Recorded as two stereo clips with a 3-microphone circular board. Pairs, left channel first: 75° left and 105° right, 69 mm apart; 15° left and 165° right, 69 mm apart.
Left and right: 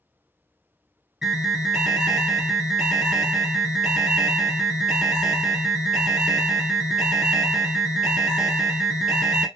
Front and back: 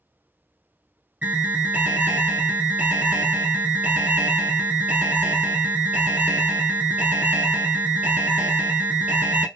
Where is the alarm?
170° right, 0.7 m.